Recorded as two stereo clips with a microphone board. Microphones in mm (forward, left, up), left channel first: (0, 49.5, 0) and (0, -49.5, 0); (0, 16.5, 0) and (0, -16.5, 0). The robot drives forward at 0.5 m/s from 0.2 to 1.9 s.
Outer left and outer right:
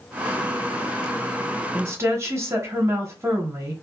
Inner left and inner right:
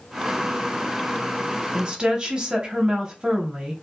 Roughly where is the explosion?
No explosion in this recording.